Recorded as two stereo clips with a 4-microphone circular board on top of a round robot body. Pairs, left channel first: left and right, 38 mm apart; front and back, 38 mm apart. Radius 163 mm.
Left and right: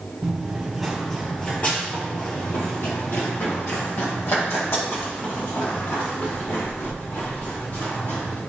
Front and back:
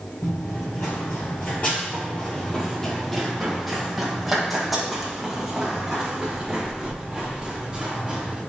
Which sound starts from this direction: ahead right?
Running footsteps, at 0.2 s.